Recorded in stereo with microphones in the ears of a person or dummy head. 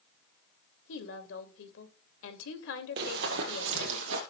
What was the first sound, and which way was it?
A woman speaking, 75° left (ahead or behind).